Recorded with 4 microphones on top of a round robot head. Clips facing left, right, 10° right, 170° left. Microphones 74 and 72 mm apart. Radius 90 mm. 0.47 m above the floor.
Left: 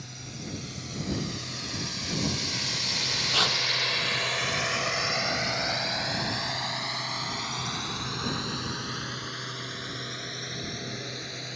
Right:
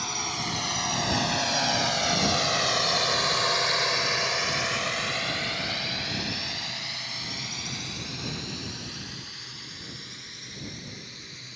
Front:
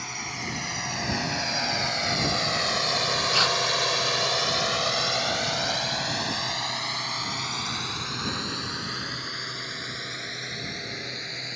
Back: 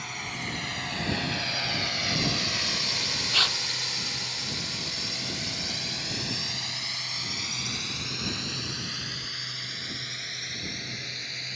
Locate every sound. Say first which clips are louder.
0.0 s a drone: right 9 dB, front 1 dB; 95° right; by 11.6 s 50° left
3.3 s tearing paper: right 2 dB, front 4 dB; 65° left